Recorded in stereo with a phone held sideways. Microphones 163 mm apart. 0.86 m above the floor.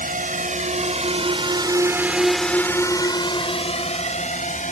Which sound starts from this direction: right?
A drone, at 0.0 s.